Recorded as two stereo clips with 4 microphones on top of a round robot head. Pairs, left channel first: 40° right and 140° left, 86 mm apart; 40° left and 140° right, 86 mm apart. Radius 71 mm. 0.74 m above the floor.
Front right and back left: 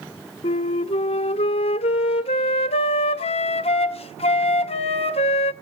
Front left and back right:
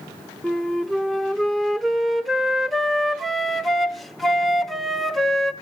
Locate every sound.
0.4 s a flute: 45° right, 0.7 m